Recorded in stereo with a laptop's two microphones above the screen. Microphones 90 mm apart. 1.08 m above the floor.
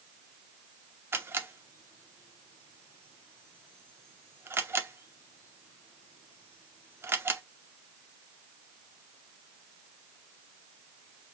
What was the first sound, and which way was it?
A camera shutter, 25° right (ahead or behind).